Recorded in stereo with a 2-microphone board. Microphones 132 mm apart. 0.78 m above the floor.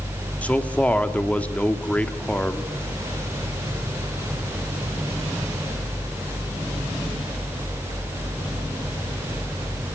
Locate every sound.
0.4 s a man speaking: 10° left (ahead or behind), 1.4 m